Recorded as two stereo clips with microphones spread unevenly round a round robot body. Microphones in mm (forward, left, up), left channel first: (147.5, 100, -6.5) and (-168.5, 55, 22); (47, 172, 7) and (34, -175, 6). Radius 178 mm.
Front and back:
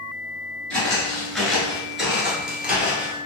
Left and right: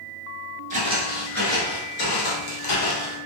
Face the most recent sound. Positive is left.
turn(degrees=105)